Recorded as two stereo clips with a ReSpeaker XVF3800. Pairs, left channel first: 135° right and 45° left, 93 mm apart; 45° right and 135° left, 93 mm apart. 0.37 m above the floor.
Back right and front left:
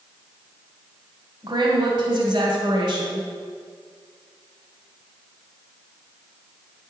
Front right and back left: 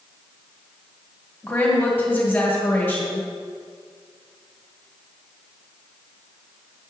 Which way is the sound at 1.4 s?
20° left.